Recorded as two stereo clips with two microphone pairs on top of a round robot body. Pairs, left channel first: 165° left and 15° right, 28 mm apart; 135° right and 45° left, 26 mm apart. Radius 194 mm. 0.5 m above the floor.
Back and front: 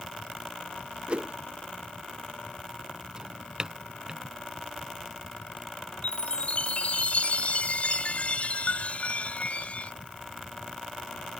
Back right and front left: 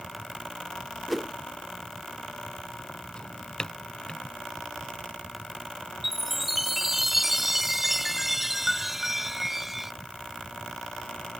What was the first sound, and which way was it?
A whoosh, 45° right.